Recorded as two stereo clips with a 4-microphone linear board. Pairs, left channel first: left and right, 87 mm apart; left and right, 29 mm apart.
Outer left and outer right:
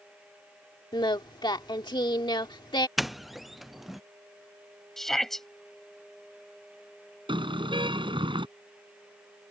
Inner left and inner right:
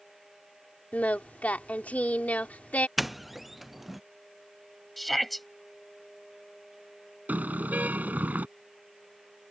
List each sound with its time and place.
0.9 s singing: 65° left (ahead or behind)
3.0 s a doorbell: centre (ahead or behind)
5.0 s a shout: 5° left (ahead or behind)
7.3 s a car horn: 80° right